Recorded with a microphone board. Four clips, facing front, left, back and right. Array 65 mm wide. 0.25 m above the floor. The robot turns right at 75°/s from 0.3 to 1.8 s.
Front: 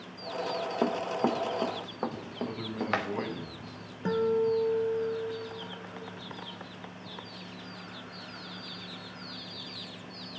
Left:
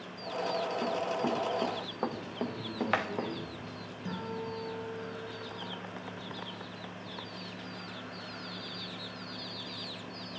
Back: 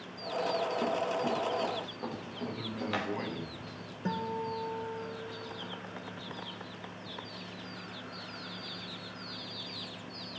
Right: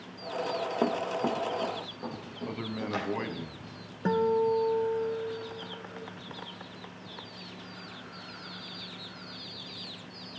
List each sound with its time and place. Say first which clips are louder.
0.8 s running footsteps: right 3 dB, front 3 dB; 50° right, 0.9 m; by 3.3 s 50° left, 2.5 m
2.5 s a man speaking: left 1 dB, front 4 dB; 85° right, 1.5 m
4.0 s a guitar: right 14 dB, front 9 dB; 75° right, 2.5 m